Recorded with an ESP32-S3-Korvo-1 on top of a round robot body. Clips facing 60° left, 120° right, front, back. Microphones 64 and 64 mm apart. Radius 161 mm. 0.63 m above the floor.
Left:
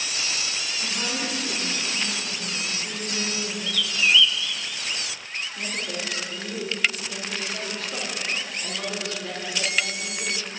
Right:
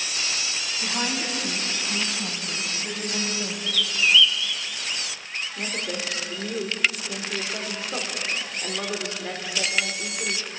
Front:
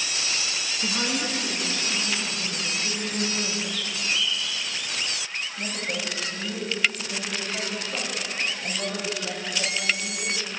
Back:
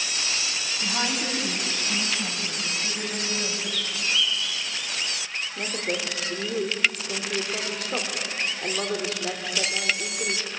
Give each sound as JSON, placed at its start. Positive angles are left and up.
{"t": 0.8, "sound": "a woman speaking", "azimuth_deg": -165, "distance_m": 5.5}
{"t": 3.7, "sound": "a bird", "azimuth_deg": 145, "distance_m": 0.5}
{"t": 5.6, "sound": "a woman speaking", "azimuth_deg": 175, "distance_m": 3.0}